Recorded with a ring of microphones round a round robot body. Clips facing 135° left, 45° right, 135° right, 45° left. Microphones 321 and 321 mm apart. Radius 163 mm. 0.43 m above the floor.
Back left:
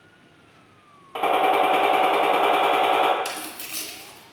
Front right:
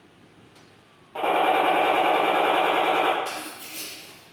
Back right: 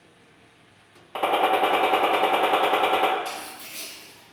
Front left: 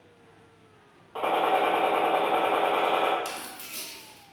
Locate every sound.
1.1 s a gunshot: 165° right, 0.6 m
3.2 s tearing paper: 100° left, 0.8 m